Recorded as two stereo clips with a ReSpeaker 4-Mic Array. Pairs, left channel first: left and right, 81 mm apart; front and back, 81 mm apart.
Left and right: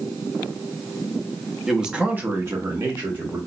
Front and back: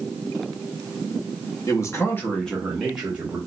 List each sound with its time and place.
1.7 s a man speaking: 5° right, 0.8 m; by 3.4 s 115° right, 1.0 m